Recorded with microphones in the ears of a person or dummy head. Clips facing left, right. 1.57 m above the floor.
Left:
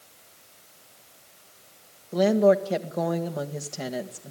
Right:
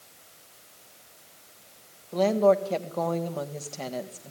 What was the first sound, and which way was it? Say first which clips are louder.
A woman speaking: left 2 dB; 10° left (ahead or behind).